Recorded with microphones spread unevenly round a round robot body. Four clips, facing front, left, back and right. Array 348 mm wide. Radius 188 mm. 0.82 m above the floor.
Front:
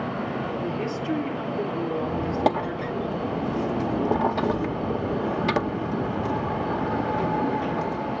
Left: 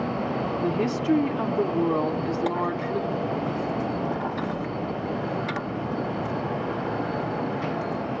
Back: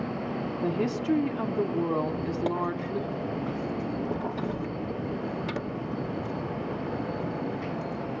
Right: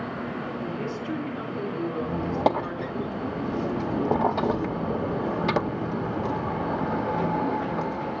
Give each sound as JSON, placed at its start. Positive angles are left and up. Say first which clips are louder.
{"t": 0.6, "sound": "a woman speaking", "louder": "left 7 dB, even", "azimuth_deg": 95, "distance_m": 2.5}
{"t": 2.0, "sound": "a squeak", "louder": "right 1 dB, front 5 dB", "azimuth_deg": -30, "distance_m": 0.9}